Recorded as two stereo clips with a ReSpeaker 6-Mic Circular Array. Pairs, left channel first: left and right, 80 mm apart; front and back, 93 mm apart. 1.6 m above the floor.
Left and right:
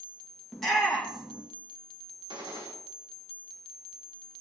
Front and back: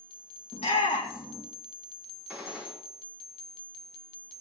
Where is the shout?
5° left, 2 m.